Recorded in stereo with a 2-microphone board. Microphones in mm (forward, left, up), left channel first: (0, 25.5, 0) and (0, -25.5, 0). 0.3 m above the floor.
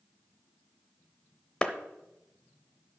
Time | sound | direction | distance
1.6 | a clap | 20° left (ahead or behind) | 0.8 m